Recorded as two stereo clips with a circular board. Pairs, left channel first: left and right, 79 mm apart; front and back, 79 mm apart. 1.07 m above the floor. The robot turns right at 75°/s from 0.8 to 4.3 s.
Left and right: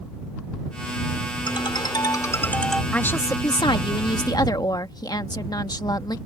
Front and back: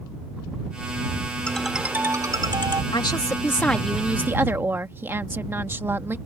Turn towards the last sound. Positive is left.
turn(degrees=120)